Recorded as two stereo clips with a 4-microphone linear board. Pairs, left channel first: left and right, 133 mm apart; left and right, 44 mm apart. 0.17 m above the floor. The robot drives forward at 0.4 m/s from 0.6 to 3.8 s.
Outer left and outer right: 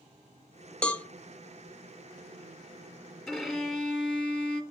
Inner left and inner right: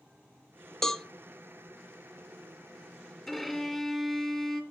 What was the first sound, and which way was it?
A cowbell, 10° left (ahead or behind).